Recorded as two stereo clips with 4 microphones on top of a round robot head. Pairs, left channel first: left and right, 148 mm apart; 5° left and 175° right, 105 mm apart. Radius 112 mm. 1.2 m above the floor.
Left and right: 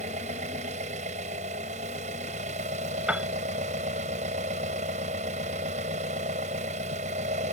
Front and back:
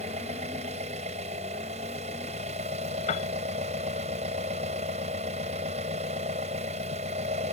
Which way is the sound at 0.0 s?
140° right.